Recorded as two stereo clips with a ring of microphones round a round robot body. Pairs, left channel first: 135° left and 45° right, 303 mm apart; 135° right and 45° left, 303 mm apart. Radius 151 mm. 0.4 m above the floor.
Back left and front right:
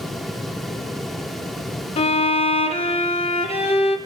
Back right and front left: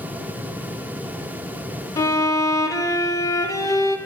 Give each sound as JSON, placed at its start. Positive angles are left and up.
{"t": 2.0, "sound": "a violin", "azimuth_deg": 165, "distance_m": 0.5}